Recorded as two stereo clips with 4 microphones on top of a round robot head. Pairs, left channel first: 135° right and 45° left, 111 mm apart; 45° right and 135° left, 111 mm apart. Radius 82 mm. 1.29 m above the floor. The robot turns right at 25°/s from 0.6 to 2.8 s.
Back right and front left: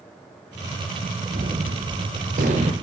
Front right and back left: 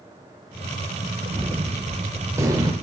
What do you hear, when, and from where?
1.3 s a gunshot: 40° left, 1.9 m; by 2.7 s 75° left, 1.9 m